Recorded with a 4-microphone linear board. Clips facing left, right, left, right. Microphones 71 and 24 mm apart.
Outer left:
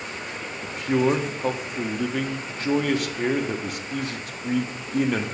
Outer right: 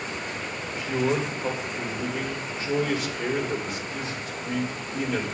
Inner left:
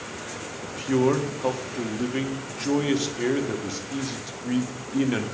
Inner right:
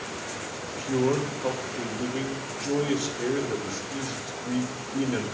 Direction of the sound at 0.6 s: 55° left (ahead or behind).